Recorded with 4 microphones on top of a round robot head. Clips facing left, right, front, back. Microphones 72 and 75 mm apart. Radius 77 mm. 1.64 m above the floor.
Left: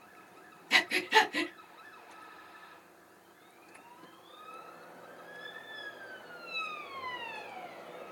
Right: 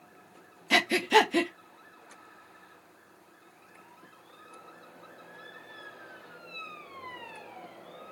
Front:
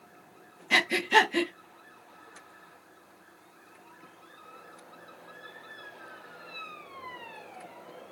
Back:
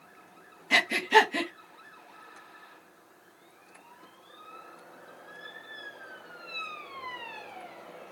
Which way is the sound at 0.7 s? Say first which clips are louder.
Right 4 dB, back 1 dB; 90° right.